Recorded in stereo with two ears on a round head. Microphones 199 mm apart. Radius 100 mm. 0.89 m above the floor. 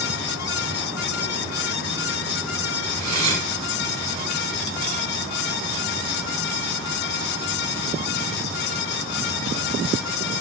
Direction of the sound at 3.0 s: 80° right.